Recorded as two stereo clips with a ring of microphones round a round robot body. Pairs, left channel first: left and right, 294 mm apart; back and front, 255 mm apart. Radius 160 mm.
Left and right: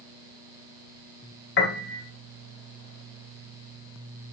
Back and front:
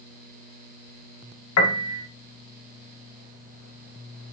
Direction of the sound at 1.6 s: 145° left.